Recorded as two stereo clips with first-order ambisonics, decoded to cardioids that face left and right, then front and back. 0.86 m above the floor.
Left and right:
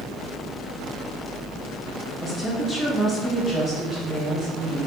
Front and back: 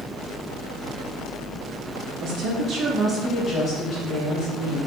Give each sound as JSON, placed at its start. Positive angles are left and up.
{"t": 2.2, "sound": "a woman speaking", "azimuth_deg": 180, "distance_m": 0.7}